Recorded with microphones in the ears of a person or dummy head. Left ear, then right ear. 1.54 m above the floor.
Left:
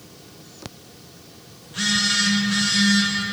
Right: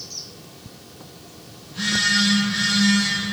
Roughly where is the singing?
I don't hear singing.